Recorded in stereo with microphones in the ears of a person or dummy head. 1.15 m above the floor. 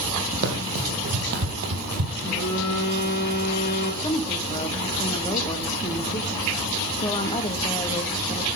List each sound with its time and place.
0.4 s running footsteps: 55° right (ahead or behind), 3 m; by 2.1 s 50° right (ahead or behind), 1.7 m
2.2 s a phone buzzing: 60° left (ahead or behind), 6.5 m
4.0 s a woman speaking: 25° left (ahead or behind), 1.5 m